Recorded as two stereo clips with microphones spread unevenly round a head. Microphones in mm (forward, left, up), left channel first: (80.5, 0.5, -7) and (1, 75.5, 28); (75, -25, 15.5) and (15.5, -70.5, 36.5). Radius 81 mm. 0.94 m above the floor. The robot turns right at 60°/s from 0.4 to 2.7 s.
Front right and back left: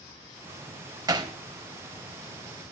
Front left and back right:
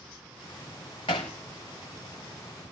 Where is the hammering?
85° left, 1.8 m; by 1.3 s 100° left, 1.8 m.